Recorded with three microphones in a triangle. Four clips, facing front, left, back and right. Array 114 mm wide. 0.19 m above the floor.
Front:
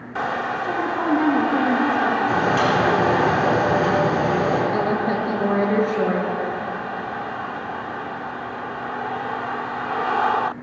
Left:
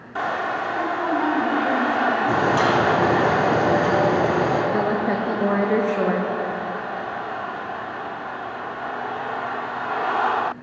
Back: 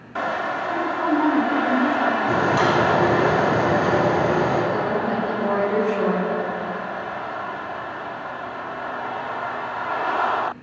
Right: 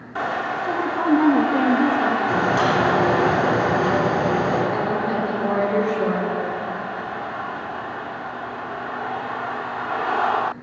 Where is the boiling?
115° left, 5 m.